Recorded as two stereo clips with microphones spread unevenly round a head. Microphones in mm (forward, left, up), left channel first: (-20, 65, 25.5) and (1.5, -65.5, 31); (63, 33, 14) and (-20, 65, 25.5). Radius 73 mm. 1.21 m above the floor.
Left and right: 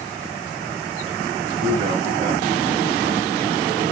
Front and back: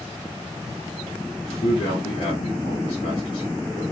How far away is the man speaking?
About 3 m.